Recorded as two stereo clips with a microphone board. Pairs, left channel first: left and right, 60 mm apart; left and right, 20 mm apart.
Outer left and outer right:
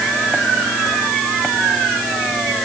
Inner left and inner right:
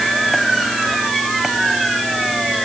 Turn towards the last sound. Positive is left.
No sound to turn to.